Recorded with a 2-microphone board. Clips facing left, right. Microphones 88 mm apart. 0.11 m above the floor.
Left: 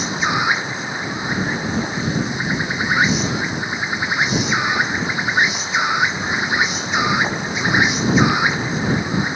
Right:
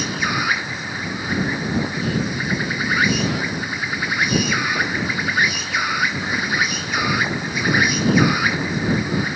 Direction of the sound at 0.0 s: 20° left (ahead or behind).